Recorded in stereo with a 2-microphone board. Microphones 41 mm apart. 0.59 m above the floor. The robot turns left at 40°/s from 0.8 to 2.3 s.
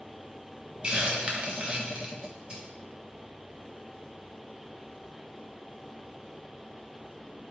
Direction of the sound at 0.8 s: 30° right (ahead or behind).